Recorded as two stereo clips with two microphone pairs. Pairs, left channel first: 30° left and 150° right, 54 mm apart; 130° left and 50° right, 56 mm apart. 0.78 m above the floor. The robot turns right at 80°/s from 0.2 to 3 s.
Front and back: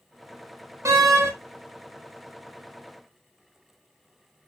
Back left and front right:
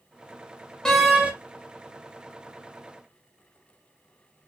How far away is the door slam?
About 1.0 m.